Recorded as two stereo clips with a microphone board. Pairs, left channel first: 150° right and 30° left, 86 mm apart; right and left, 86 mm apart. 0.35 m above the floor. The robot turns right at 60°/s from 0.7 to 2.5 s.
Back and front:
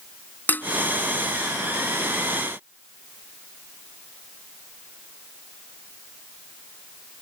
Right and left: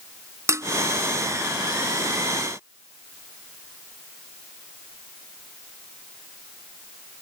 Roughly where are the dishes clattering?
Behind left.